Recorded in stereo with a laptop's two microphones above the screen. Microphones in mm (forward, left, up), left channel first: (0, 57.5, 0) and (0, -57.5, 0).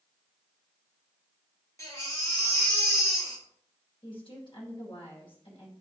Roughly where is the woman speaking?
Left.